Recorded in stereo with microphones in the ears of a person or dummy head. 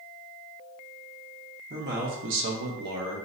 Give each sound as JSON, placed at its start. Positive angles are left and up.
{"t": 1.7, "sound": "a man speaking", "side_deg": -40, "distance_m": 0.6}